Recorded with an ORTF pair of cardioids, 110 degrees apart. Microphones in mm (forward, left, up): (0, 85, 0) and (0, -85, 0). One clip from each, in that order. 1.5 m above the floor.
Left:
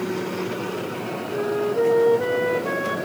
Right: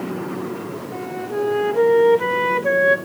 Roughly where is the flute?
Ahead right.